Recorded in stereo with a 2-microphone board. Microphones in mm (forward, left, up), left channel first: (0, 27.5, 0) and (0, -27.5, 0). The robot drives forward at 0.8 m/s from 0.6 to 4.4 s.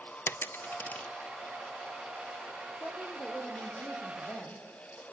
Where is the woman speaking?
35° left (ahead or behind), 6.5 m; by 5.0 s 40° left (ahead or behind), 5.5 m.